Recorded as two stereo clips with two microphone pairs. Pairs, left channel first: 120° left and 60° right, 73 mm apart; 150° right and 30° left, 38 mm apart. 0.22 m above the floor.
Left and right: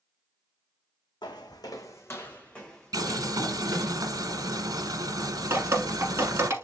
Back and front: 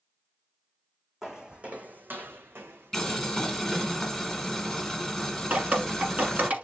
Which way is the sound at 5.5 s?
10° right.